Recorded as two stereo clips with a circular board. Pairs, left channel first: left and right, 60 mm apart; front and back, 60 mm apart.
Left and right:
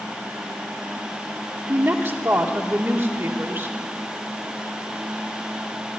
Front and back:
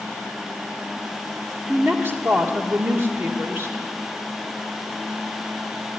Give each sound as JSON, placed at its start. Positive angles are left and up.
{"t": 1.7, "sound": "a woman speaking", "azimuth_deg": -140, "distance_m": 1.4}